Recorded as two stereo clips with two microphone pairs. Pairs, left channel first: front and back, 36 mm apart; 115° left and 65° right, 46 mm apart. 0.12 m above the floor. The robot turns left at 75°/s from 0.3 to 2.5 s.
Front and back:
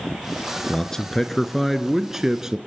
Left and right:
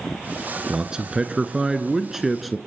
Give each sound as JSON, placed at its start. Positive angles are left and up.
{"t": 0.7, "sound": "a man speaking", "azimuth_deg": -20, "distance_m": 1.1}